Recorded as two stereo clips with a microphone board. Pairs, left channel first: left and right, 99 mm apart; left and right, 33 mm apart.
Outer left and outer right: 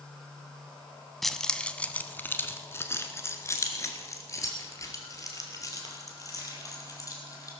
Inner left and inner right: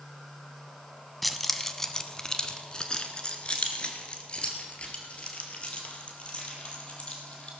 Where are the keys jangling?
Centre (ahead or behind), 0.7 m; by 7.5 s 35° left (ahead or behind), 3.5 m.